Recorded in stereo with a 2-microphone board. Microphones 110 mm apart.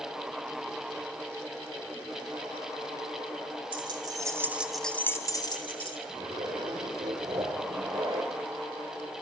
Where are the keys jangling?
50° right (ahead or behind), 1.4 m; by 6.0 s 55° left (ahead or behind), 1.5 m.